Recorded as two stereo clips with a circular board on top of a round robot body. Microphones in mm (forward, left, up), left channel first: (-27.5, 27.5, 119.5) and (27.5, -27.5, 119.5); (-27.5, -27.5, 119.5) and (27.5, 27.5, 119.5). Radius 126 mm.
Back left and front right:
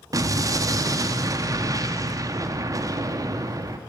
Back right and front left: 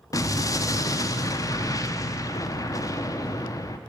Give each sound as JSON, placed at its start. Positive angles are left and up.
{"t": 0.1, "sound": "an explosion", "azimuth_deg": -90, "distance_m": 0.6}